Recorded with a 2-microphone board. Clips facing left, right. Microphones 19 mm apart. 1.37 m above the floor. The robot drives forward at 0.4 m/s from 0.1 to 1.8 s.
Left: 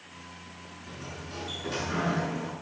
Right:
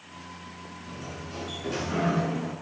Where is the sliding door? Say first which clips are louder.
Right 1 dB; 5° left (ahead or behind), 7 m.